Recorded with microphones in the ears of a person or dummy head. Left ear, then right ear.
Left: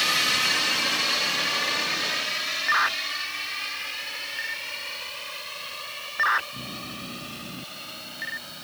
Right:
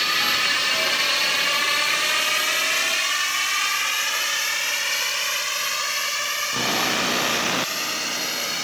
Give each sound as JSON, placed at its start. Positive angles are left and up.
{"t": 0.0, "sound": "a drone", "side_deg": 0}